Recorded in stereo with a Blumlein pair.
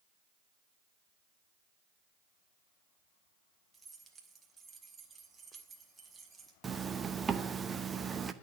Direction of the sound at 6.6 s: 15° right.